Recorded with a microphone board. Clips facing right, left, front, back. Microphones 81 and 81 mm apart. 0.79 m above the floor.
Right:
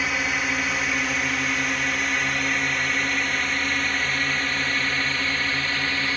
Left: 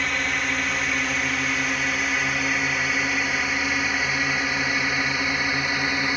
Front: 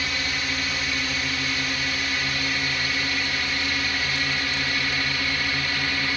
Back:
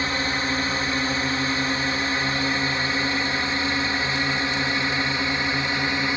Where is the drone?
175° right; by 6.2 s 145° left.